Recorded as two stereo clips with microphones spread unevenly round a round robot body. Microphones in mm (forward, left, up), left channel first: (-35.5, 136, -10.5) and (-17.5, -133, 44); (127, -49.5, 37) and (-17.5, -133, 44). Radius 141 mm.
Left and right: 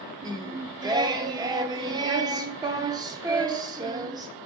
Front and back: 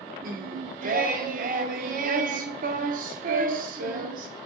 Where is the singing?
150° right, 0.5 m.